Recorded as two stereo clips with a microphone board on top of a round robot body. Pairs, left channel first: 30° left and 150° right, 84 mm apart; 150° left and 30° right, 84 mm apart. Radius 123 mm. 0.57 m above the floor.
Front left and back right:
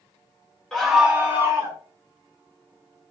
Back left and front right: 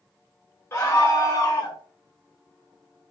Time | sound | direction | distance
0.7 | a scream | 110° left | 0.7 m